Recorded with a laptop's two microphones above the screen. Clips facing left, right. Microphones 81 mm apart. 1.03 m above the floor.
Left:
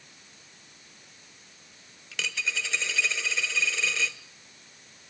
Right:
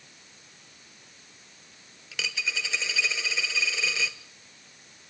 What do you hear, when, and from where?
2.1 s a dropped coin: centre (ahead or behind), 0.8 m